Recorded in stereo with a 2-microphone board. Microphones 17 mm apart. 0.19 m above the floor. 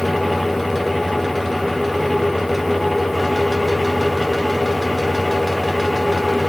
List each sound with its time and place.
Only background noise.